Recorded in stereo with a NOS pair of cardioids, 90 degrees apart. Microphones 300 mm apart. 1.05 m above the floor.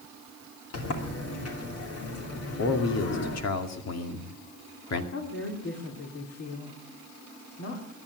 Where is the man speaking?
60° left, 2.5 m.